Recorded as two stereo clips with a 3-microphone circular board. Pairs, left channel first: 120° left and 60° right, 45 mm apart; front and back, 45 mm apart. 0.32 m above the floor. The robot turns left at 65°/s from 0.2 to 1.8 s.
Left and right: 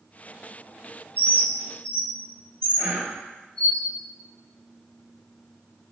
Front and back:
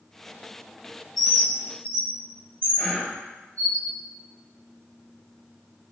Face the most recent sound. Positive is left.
turn(degrees=-65)